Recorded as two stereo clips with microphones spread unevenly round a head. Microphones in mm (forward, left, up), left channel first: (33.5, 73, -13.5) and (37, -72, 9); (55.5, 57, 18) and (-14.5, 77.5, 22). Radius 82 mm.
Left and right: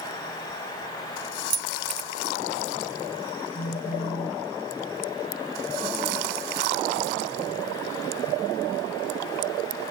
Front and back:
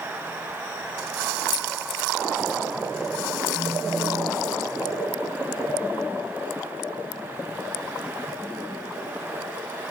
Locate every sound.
1.5 s keys jangling: 30° right
3.5 s a phone buzzing: 130° left